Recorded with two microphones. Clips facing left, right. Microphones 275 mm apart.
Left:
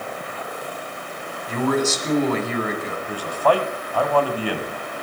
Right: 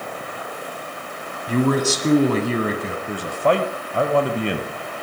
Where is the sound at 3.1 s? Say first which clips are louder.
Even; 25° right (ahead or behind), 1.3 m.